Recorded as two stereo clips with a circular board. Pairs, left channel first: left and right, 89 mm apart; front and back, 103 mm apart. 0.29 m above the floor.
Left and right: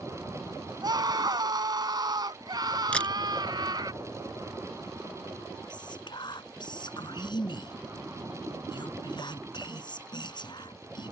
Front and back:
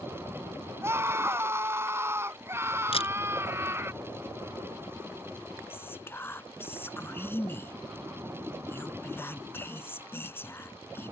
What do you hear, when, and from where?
0.8 s a scream: 120° right
2.9 s a camera shutter: 15° left
5.7 s whispering: 65° left